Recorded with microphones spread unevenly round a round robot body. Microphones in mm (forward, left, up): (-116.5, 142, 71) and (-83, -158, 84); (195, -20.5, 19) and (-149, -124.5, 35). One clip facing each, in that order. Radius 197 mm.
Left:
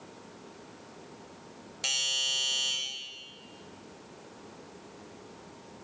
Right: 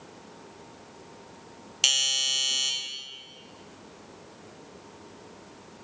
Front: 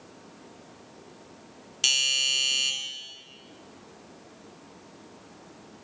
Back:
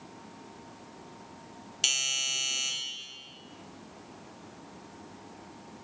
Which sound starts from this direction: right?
A doorbell, at 1.8 s.